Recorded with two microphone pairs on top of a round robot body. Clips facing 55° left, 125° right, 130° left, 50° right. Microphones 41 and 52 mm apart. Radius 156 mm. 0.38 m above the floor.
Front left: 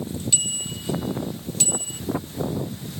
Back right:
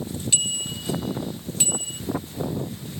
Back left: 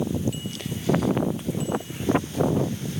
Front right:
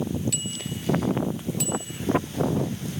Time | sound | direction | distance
0.3 | a bicycle bell | 55° right | ?